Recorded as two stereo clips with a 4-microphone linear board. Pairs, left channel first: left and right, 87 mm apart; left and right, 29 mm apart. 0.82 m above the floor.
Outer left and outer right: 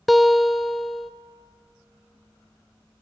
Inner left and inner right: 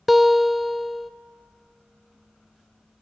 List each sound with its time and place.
0.1 s a guitar: centre (ahead or behind), 0.6 m